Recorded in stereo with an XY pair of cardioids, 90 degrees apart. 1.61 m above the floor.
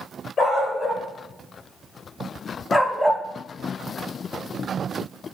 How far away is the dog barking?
About 3.5 m.